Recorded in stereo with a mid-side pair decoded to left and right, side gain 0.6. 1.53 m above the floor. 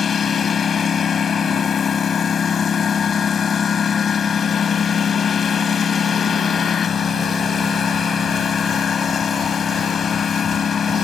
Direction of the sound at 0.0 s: 40° left.